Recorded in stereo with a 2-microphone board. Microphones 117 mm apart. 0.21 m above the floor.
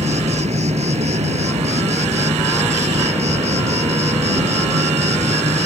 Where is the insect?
70° right (ahead or behind).